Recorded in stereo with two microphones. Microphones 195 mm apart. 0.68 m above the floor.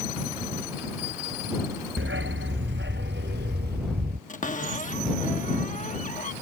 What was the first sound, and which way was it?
A dog barking, 85° right.